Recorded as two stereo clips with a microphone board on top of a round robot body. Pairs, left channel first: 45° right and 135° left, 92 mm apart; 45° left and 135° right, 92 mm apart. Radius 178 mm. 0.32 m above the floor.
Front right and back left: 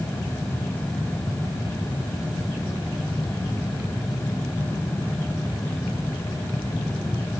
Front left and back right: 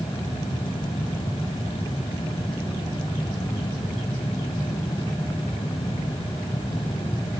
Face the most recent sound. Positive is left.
No sound to turn to.